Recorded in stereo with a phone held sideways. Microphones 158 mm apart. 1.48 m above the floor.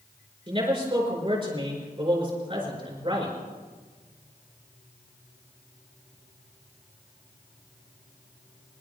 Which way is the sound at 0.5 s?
30° right (ahead or behind).